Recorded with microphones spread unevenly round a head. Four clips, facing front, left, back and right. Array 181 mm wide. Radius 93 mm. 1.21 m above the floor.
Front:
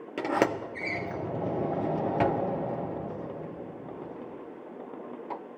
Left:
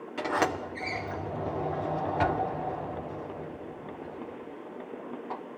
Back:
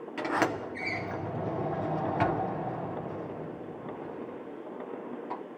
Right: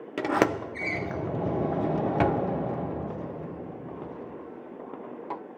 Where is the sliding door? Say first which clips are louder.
Right 4 dB, front 2 dB; 55° right, 0.5 m.